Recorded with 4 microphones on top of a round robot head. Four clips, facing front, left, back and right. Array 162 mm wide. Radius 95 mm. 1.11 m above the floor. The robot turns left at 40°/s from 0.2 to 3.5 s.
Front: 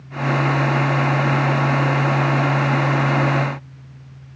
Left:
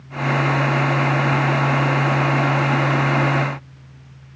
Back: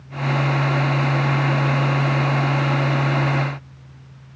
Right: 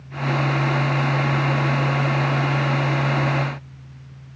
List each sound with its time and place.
Only background noise.